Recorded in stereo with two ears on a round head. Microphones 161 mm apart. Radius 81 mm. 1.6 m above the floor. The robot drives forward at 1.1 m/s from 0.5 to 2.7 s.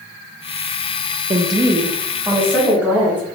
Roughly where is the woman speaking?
Right.